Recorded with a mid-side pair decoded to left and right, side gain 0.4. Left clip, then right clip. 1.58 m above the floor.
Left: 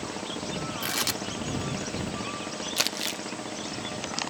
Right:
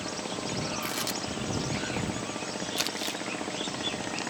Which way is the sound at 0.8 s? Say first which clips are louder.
Left 3 dB; 50° left.